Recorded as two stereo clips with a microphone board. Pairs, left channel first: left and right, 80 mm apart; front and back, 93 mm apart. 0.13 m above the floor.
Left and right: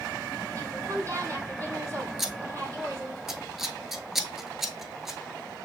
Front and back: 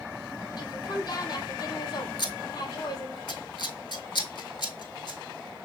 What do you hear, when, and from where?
0.6 s a woman speaking: 40° right, 3 m
2.2 s scissors: 5° right, 0.7 m